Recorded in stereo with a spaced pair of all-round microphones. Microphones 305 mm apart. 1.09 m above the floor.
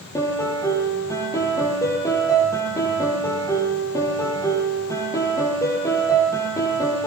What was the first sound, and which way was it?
A piano, 10° left (ahead or behind).